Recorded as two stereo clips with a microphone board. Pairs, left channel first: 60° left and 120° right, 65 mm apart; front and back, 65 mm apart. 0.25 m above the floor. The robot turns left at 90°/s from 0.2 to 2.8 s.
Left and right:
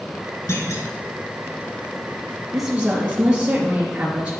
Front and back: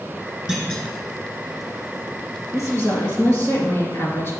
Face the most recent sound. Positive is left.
turn(degrees=-50)